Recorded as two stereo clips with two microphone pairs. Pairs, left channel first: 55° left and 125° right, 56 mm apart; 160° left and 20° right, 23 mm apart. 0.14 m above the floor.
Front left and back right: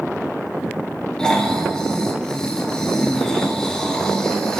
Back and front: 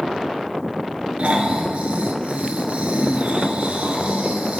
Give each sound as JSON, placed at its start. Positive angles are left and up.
{"t": 1.2, "sound": "snoring", "azimuth_deg": -20, "distance_m": 1.0}